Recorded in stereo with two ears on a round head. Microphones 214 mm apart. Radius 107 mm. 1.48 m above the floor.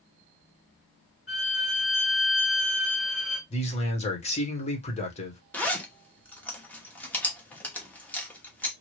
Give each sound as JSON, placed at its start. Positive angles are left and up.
{"t": 1.3, "sound": "a violin", "side_deg": 45, "distance_m": 1.9}
{"t": 3.5, "sound": "a man speaking", "side_deg": 25, "distance_m": 1.3}
{"t": 5.5, "sound": "a zipper", "side_deg": 5, "distance_m": 1.0}